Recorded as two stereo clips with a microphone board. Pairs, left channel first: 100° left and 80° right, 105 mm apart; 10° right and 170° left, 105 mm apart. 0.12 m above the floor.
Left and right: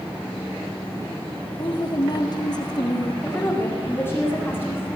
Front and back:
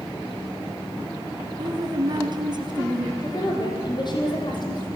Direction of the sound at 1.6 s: 135° left.